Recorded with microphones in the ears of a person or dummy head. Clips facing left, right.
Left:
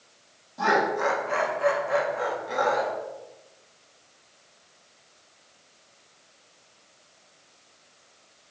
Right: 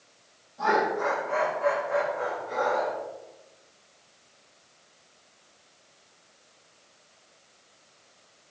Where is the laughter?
80° left, 1.7 m.